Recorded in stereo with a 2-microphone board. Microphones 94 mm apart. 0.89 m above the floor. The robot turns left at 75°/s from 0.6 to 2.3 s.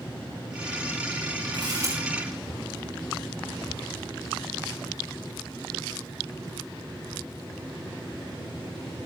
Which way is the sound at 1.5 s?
120° right.